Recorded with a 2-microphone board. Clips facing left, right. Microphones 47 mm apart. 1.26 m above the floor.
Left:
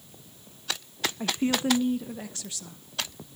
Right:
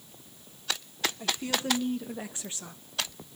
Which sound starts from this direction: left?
A woman speaking, at 1.2 s.